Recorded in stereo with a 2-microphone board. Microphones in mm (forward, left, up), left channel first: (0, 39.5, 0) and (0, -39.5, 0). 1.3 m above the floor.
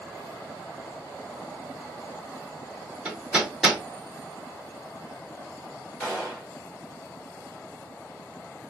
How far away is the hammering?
About 1.1 m.